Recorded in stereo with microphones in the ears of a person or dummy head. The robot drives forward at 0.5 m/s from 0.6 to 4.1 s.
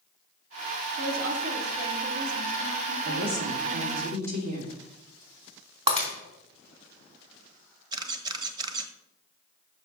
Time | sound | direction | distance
1.0 | a woman speaking | 60° right (ahead or behind) | 2.5 m
3.0 | a woman speaking | 50° right (ahead or behind) | 2.5 m
5.9 | breaking glass | 25° right (ahead or behind) | 3 m
7.9 | a camera shutter | 30° right (ahead or behind) | 0.9 m